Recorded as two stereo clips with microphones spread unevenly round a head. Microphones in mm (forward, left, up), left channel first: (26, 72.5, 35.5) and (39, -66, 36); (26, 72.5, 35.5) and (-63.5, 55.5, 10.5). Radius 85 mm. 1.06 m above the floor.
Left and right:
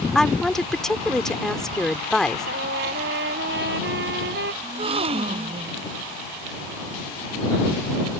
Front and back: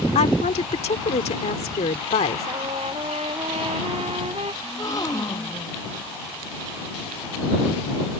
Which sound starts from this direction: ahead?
A woman speaking, at 0.1 s.